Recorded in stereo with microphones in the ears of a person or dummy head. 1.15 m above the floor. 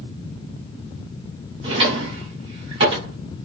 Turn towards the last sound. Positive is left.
turn(degrees=-35)  # may be behind; listen again after turning